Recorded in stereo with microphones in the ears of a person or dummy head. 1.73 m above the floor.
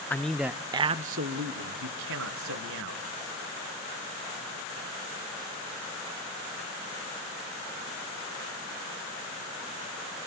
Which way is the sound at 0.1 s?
10° left (ahead or behind).